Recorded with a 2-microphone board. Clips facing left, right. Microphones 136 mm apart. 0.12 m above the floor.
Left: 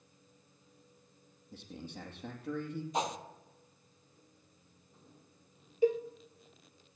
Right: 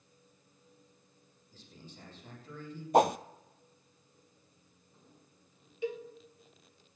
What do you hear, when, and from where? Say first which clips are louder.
1.5 s a man speaking: left 8 dB; 65° left (ahead or behind), 4 m
2.9 s a whoosh: right 11 dB; 60° right (ahead or behind), 0.6 m
5.8 s a cowbell: left 8 dB; 40° left (ahead or behind), 1.5 m